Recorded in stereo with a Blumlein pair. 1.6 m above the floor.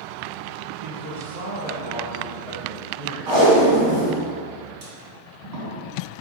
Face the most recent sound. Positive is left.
turn(degrees=-45)